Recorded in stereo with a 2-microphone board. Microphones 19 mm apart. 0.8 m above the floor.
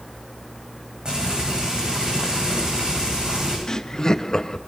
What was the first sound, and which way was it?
Frying, 55° right (ahead or behind).